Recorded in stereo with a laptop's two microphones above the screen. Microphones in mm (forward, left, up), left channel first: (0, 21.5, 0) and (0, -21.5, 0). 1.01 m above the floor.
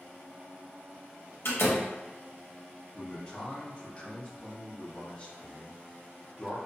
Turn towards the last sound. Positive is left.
turn(degrees=25)  # may be behind; listen again after turning